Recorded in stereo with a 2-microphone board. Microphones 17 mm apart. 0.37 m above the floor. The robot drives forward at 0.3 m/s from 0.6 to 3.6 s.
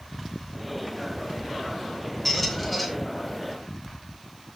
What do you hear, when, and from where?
2.2 s a squeak: 5° left (ahead or behind), 1.8 m; by 2.9 s centre (ahead or behind), 2 m